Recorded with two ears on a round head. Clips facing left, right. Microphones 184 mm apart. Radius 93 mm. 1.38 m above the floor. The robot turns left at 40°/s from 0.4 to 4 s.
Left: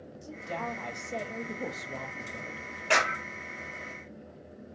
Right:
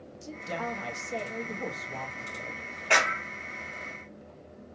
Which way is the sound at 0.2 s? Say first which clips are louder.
Right 2 dB; 155° right.